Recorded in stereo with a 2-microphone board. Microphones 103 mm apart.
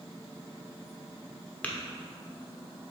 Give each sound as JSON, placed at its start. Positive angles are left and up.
{"t": 1.6, "sound": "tapping", "side_deg": 15, "distance_m": 0.9}